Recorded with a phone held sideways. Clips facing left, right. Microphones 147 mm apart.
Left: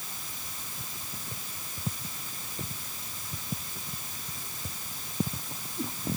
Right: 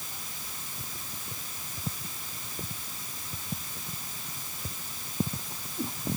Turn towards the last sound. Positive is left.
No sound to turn to.